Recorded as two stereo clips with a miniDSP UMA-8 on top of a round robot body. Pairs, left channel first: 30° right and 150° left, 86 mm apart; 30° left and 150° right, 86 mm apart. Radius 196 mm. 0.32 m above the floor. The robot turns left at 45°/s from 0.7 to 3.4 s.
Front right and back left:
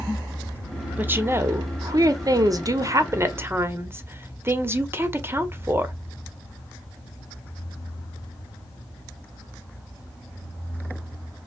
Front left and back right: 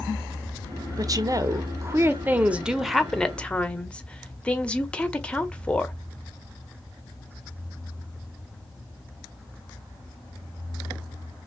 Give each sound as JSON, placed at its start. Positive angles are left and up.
{"t": 1.0, "sound": "a woman speaking", "azimuth_deg": -150, "distance_m": 1.1}